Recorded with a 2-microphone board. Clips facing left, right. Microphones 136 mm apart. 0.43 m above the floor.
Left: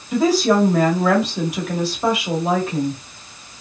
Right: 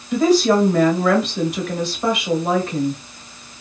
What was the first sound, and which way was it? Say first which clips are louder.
A woman speaking: right 1 dB; 5° left (ahead or behind).